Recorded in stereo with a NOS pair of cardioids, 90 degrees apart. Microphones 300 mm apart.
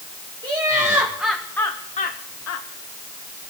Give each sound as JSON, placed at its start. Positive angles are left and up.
{"t": 0.4, "sound": "laughter", "azimuth_deg": -15, "distance_m": 2.0}